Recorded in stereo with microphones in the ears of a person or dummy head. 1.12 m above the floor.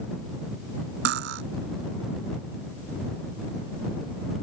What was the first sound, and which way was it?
Cutlery clinking, 65° right (ahead or behind).